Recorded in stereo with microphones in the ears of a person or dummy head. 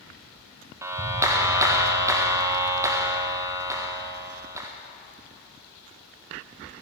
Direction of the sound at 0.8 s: 15° right (ahead or behind).